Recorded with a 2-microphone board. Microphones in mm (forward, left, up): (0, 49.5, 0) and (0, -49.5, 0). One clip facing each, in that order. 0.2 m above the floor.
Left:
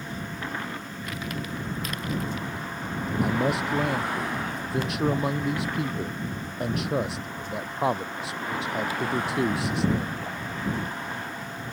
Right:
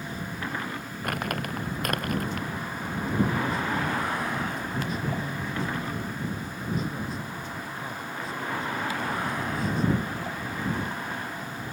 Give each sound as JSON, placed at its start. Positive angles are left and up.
{"t": 1.0, "sound": "crumpling", "side_deg": -55}
{"t": 3.2, "sound": "a man speaking", "side_deg": 80}